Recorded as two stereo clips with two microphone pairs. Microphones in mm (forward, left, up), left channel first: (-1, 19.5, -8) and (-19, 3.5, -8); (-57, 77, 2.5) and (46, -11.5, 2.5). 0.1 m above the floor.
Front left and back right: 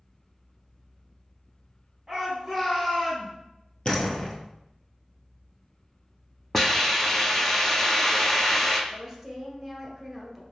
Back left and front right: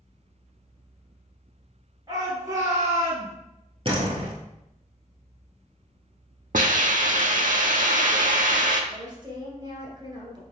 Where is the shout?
65° right, 1.8 m; by 3.3 s 10° left, 1.8 m.